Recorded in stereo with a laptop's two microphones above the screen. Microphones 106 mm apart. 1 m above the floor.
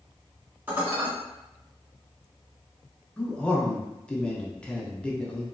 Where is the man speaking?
10° left (ahead or behind), 0.5 m.